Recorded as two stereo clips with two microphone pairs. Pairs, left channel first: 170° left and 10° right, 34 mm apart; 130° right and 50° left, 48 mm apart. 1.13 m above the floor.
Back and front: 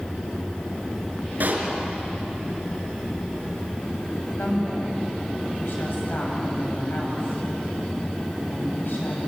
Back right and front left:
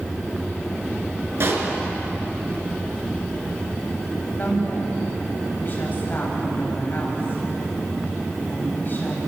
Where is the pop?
20° left, 4.5 m.